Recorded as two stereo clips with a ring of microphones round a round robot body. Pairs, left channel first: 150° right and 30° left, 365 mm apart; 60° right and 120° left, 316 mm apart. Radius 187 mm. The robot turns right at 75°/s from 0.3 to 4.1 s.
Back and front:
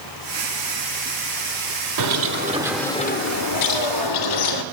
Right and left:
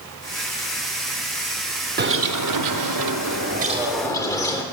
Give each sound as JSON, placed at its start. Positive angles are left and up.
{"t": 2.0, "sound": "a bird", "azimuth_deg": 60, "distance_m": 0.7}